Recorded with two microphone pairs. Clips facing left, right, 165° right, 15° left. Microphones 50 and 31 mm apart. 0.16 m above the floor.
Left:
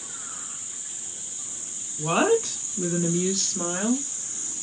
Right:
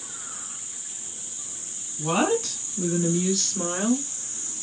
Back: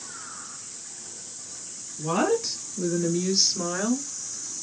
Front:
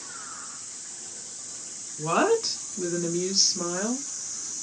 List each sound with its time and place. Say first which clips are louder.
2.0 s a woman speaking: left 2 dB, front 1 dB; 35° left, 1.4 m; by 4.1 s 165° right, 1.1 m